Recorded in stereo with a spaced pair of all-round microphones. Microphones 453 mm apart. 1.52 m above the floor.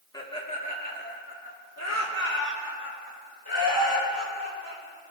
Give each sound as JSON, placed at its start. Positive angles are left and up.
{"t": 0.1, "sound": "laughter", "side_deg": 10, "distance_m": 2.5}